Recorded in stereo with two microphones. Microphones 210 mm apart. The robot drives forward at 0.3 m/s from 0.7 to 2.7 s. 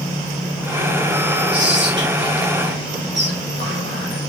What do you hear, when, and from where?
1.5 s whispering: 60° right (ahead or behind), 3.5 m